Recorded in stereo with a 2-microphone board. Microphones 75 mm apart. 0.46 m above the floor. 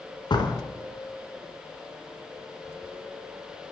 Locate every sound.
0.3 s a door slam: 65° left (ahead or behind), 4 m